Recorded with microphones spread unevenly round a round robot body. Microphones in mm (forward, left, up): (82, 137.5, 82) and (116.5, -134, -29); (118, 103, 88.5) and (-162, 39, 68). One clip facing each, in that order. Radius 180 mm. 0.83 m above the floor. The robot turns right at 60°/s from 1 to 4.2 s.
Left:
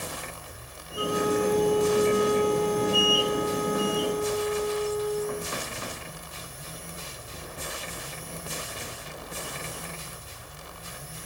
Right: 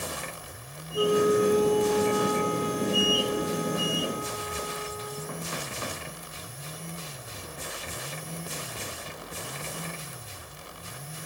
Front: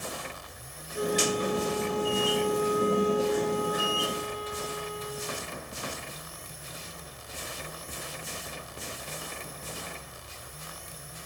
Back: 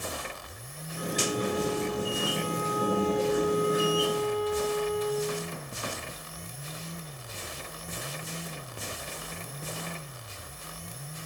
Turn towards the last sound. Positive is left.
turn(degrees=155)